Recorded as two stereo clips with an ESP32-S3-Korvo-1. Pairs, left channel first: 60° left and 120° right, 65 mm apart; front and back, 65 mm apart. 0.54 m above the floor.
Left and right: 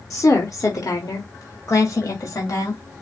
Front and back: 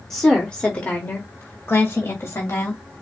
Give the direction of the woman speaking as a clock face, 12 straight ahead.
9 o'clock.